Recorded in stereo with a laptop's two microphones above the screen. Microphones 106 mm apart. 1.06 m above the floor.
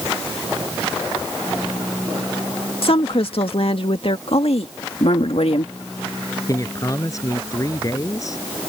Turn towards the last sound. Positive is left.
turn(degrees=30)  # may be behind; listen again after turning